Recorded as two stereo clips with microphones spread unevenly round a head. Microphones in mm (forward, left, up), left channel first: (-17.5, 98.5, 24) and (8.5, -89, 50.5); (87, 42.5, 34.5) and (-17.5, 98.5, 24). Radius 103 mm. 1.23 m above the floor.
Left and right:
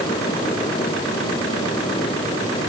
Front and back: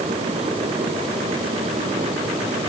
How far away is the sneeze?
No sneeze in this recording.